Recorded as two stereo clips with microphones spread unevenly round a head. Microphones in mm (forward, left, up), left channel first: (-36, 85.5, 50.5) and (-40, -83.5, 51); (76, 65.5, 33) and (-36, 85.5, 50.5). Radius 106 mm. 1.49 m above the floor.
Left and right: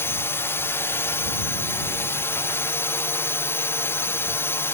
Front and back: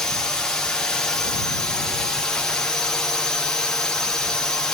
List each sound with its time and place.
0.0 s a drone: 40° left